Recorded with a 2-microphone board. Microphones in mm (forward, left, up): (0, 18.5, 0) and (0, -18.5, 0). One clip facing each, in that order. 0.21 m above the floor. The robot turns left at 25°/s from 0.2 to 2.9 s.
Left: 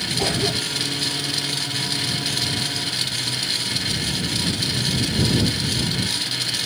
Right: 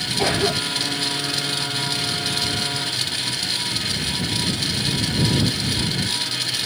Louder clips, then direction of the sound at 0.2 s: Right 3 dB; 15° right (ahead or behind).